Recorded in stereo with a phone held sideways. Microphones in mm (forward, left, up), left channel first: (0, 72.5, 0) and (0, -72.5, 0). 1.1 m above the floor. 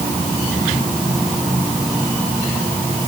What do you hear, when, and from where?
Only background noise.